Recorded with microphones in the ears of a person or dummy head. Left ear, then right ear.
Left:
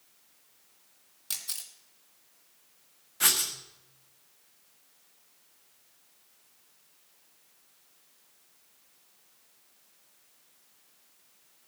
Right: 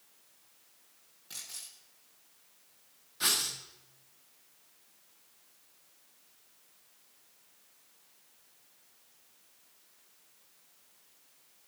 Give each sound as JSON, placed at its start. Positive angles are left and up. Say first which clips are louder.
{"t": 1.3, "sound": "a camera shutter", "louder": "left 7 dB", "side_deg": 55, "distance_m": 3.0}
{"t": 3.2, "sound": "writing", "louder": "left 3 dB", "side_deg": 20, "distance_m": 1.7}